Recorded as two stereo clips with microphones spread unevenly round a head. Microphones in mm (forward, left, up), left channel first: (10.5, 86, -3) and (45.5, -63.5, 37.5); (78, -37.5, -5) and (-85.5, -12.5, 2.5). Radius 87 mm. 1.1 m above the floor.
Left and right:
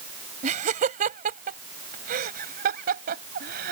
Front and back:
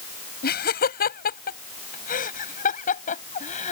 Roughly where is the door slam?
I don't hear a door slam.